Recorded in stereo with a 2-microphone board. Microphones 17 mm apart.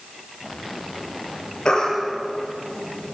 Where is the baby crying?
50° left (ahead or behind), 7.5 m.